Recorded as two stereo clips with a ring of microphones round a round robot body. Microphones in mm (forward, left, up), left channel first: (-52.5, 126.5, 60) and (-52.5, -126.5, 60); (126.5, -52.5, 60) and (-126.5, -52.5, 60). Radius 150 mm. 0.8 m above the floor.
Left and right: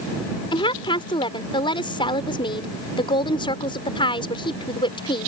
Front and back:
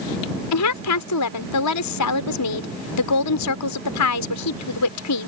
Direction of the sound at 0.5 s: 15° left.